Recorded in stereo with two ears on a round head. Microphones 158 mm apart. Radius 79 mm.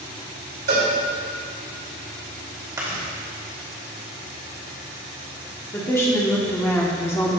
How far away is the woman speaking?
About 1.1 m.